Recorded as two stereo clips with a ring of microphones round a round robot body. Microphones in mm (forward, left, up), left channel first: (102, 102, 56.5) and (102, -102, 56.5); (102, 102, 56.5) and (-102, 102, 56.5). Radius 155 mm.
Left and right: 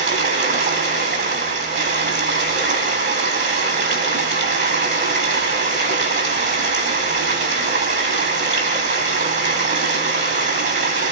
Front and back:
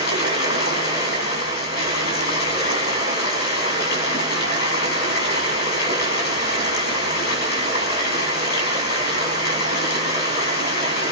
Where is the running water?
55° right, 5 m.